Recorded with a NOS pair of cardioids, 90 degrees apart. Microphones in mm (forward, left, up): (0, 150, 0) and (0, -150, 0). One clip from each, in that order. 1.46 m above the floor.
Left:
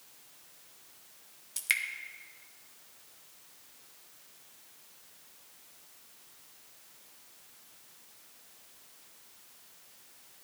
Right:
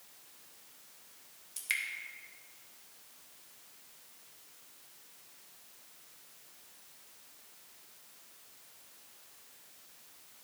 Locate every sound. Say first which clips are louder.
1.6 s dripping: left 4 dB; 30° left, 1.0 m